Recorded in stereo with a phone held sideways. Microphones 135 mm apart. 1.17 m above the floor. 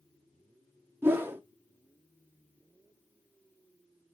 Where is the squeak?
No squeak in this recording.